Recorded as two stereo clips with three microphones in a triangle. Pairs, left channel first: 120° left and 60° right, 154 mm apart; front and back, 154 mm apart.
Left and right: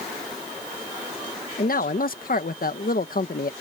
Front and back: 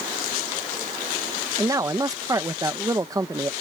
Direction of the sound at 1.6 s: 115° left.